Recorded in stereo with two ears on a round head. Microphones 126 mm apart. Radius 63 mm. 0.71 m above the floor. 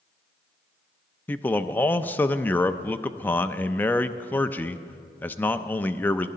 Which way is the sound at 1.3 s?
15° left (ahead or behind).